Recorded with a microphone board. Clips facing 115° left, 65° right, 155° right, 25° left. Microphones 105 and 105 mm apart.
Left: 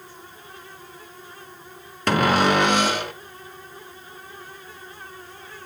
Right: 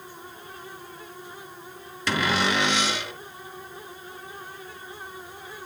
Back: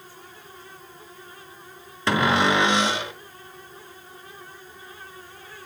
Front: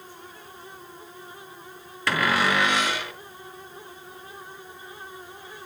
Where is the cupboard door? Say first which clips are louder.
Left 6 dB, back 3 dB; 140° left, 0.8 m.